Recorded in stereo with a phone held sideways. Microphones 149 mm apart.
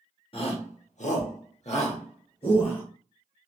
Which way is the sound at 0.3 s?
40° left (ahead or behind).